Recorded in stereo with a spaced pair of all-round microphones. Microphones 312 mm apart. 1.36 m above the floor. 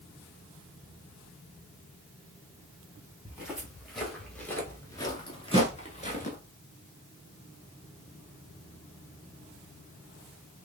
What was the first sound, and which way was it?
Footsteps, 5° right (ahead or behind).